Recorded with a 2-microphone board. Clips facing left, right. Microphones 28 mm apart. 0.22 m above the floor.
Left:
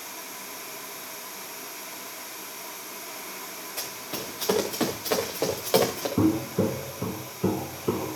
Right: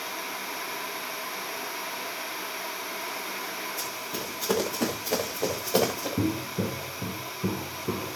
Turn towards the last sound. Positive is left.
turn(degrees=55)  # may be behind; listen again after turning